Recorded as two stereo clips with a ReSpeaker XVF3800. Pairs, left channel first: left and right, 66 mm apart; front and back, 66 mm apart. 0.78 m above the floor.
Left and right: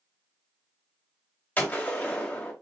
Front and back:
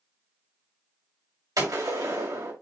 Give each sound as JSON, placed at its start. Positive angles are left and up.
{"t": 1.6, "sound": "a gunshot", "azimuth_deg": 155, "distance_m": 2.5}